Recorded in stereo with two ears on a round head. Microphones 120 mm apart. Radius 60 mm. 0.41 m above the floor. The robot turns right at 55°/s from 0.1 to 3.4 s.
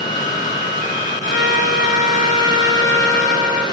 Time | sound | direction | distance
1.3 | a trumpet | 75° left | 1.8 m